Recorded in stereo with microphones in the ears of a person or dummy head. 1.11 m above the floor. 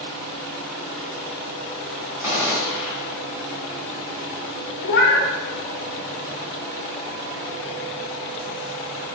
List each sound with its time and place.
2.2 s a gunshot: 10° right (ahead or behind), 1.1 m
4.8 s a cat meowing: 60° left (ahead or behind), 0.6 m